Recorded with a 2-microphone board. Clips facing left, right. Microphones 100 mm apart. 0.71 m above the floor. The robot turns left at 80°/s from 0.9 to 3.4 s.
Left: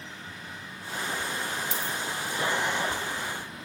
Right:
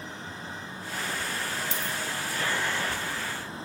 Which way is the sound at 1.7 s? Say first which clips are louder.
Left 1 dB; 45° left (ahead or behind).